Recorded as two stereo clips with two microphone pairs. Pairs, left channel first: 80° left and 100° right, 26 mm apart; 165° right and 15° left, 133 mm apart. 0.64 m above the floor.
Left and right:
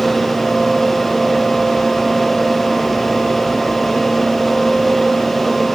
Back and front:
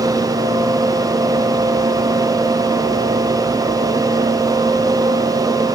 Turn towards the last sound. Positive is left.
No sound to turn to.